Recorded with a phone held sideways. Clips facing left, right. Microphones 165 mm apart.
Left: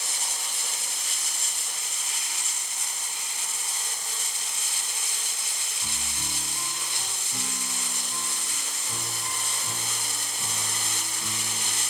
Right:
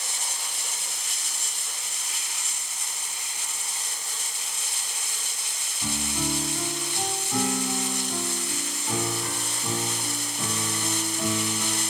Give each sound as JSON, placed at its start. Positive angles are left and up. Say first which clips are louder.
{"t": 5.8, "sound": "a piano", "louder": "right 13 dB", "side_deg": -85}